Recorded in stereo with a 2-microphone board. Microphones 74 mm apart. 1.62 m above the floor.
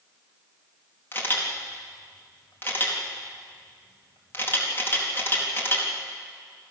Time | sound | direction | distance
1.1 | a camera shutter | 30° left (ahead or behind) | 3 m